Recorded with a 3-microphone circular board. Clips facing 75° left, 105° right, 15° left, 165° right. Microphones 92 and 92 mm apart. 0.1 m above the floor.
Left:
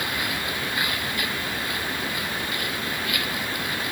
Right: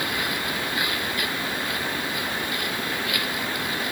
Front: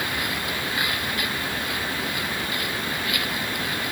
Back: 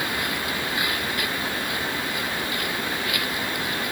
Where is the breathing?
I don't hear breathing.